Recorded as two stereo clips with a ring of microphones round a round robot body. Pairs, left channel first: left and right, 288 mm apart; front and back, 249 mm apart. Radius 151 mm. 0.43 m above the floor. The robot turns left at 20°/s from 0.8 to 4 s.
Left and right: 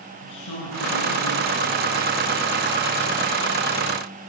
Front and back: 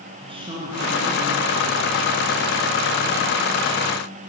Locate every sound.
0.2 s a woman speaking: 110° left, 6.5 m; by 2.4 s 80° left, 6.5 m